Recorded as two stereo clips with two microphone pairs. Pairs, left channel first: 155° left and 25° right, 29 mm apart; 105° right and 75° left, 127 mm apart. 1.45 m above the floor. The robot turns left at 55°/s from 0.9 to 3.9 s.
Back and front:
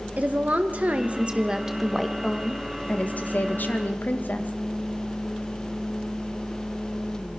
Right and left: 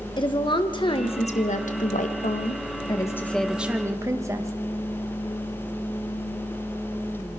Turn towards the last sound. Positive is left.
turn(degrees=145)